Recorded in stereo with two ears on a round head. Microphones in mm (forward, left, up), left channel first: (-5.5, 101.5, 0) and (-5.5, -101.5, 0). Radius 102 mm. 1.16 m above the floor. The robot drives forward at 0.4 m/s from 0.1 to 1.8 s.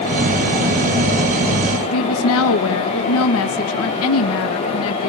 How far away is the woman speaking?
About 1.4 m.